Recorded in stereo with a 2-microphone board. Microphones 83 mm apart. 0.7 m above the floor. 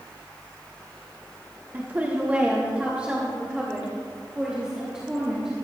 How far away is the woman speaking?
About 1.6 m.